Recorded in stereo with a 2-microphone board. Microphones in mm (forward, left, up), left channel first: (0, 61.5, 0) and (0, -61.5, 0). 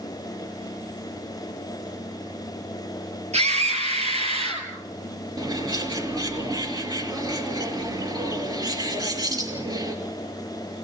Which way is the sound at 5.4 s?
35° right (ahead or behind).